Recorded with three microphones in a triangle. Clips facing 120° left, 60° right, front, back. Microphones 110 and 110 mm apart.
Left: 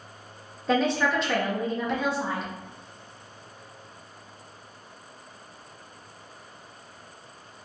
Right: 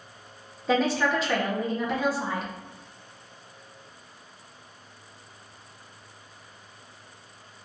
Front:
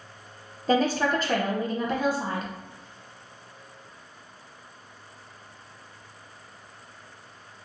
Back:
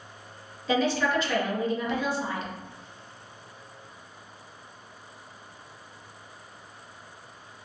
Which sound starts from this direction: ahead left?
A woman speaking, at 0.7 s.